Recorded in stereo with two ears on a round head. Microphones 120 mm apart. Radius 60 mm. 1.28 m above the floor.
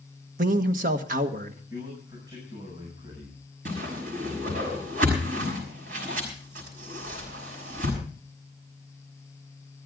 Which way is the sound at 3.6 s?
70° right (ahead or behind).